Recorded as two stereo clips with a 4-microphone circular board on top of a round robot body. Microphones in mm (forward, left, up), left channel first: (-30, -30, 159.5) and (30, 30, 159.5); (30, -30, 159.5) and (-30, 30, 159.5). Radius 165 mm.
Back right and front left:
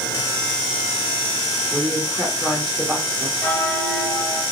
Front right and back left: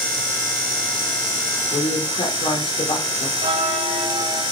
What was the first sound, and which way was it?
A woman speaking, 45° right.